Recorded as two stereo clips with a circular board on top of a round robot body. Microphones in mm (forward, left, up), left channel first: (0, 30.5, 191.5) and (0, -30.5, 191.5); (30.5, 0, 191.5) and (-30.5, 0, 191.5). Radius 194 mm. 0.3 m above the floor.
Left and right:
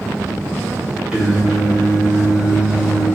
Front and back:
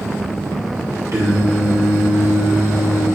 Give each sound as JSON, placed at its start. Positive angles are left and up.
{"t": 1.1, "sound": "singing", "azimuth_deg": -160, "distance_m": 1.9}